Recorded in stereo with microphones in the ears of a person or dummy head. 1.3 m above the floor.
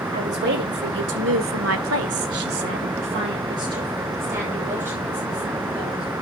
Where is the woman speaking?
45° right (ahead or behind), 3 m; by 6.1 s 5° right (ahead or behind), 5 m.